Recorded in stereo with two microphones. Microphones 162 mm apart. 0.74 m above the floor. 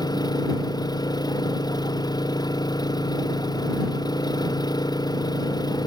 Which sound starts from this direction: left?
An engine running, at 0.0 s.